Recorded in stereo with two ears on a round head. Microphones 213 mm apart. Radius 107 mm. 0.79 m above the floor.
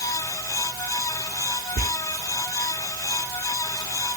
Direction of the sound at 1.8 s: 30° right (ahead or behind).